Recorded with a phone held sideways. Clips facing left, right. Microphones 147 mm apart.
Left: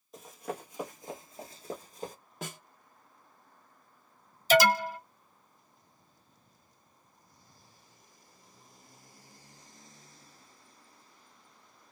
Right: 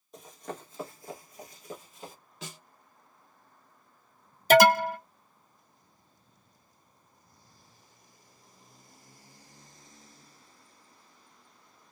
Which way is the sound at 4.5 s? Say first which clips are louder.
Right 5 dB; 55° right (ahead or behind).